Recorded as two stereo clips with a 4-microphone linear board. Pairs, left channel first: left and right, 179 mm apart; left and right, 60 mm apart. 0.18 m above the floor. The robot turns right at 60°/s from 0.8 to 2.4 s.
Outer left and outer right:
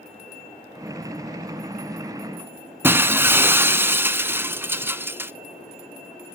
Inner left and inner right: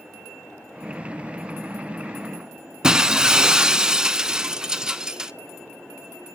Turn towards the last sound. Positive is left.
turn(degrees=-15)  # may be behind; listen again after turning